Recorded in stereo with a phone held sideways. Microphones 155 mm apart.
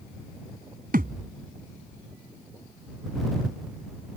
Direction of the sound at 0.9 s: 70° right (ahead or behind).